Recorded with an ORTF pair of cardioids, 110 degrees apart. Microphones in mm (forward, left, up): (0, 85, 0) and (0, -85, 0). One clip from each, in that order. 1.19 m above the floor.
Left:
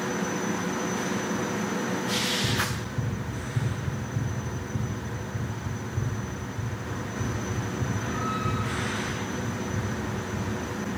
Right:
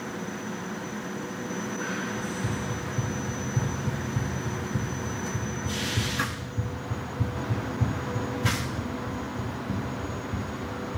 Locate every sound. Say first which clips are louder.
2.2 s running footsteps: left 6 dB; 5° right, 6 m; by 11.0 s 50° right, 6.5 m